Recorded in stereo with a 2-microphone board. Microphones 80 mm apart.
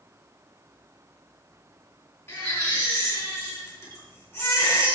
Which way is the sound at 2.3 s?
35° left (ahead or behind).